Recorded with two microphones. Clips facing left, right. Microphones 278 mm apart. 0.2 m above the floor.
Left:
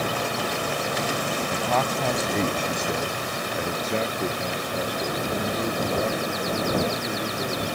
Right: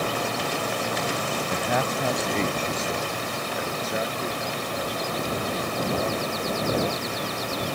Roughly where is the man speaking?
Right.